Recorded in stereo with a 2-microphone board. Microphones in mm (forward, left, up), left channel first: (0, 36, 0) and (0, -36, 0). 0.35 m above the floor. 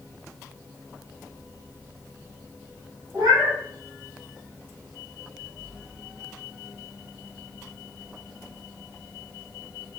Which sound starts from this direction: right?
A cat meowing, at 3.1 s.